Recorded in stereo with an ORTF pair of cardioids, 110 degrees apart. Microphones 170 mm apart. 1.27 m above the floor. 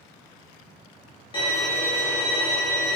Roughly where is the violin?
Ahead left.